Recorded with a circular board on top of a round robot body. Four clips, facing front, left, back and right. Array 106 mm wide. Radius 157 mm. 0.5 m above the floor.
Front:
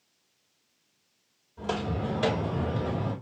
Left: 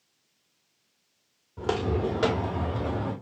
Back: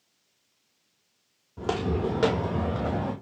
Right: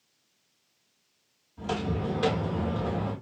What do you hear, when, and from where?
1.6 s footsteps: 130° left, 1.1 m; by 3.1 s 175° left, 1.7 m